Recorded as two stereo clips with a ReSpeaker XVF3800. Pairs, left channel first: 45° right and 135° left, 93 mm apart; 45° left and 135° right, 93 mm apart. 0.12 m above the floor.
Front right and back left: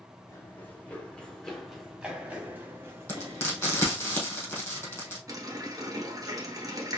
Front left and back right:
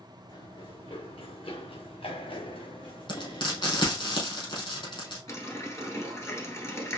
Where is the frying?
20° left, 2.5 m.